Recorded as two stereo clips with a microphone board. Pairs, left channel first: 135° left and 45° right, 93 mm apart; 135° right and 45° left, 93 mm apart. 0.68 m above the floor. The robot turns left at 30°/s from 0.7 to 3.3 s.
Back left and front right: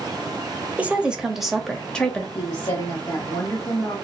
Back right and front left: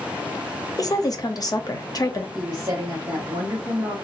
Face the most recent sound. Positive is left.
turn(degrees=75)